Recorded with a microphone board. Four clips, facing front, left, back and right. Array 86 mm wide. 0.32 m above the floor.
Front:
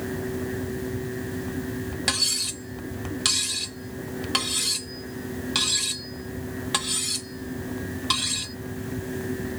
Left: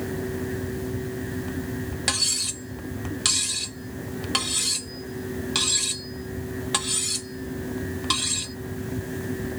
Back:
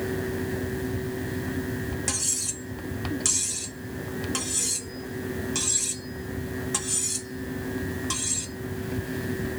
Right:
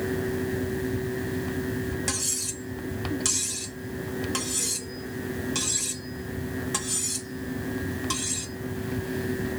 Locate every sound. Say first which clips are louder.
2.1 s cutlery clinking: left 2 dB, front 3 dB; 45° left, 0.7 m